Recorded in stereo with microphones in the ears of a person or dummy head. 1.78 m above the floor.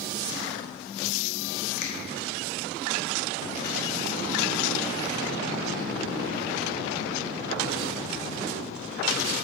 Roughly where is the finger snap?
Left.